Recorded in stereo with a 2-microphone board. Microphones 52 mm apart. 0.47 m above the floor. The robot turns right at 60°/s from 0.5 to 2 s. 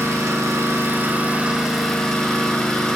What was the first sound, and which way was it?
An engine running, 80° right.